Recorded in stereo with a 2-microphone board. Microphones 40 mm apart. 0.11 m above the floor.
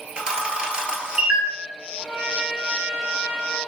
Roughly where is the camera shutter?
Right.